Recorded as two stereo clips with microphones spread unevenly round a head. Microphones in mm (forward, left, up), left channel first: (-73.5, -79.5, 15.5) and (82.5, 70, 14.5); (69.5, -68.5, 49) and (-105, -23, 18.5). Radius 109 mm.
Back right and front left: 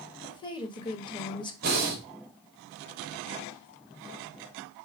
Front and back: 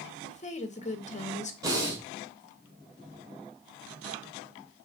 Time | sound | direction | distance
0.2 | a woman speaking | 70° right | 1.3 m
1.6 | breathing | 90° left | 1.9 m